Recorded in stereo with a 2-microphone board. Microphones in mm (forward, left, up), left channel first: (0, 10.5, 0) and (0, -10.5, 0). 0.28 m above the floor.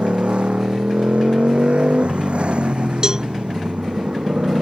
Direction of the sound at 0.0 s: 85° right.